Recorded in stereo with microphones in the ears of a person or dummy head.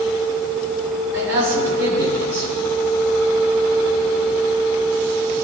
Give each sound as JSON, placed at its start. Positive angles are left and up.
{"t": 1.1, "sound": "a man speaking", "side_deg": -75, "distance_m": 2.5}